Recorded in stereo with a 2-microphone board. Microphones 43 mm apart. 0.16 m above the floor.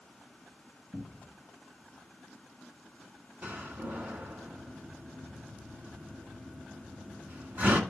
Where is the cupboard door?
35° right (ahead or behind), 1.7 m.